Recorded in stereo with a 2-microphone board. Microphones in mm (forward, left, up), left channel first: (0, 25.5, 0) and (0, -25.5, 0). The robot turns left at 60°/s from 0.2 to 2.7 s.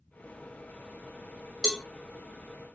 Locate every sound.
1.6 s a cowbell: 15° right (ahead or behind), 1.0 m; by 1.8 s centre (ahead or behind), 1.0 m